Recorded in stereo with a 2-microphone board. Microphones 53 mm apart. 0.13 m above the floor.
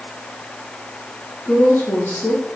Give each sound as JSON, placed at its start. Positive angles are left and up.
{"t": 1.4, "sound": "a woman speaking", "side_deg": 40, "distance_m": 4.0}